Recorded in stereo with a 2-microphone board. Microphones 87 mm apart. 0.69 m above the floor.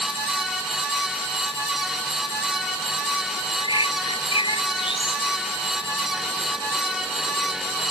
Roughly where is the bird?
Left.